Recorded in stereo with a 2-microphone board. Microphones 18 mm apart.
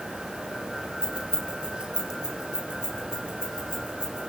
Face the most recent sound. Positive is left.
turn(degrees=-60)  # may be behind; listen again after turning